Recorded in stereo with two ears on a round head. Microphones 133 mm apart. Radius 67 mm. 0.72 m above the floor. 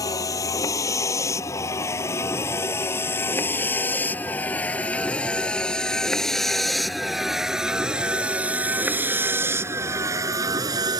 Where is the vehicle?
25° left (ahead or behind); by 11.0 s 30° right (ahead or behind).